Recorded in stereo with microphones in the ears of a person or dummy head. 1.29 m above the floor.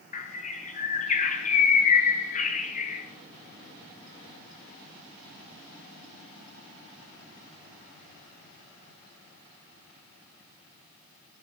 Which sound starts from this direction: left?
A bird, at 0.1 s.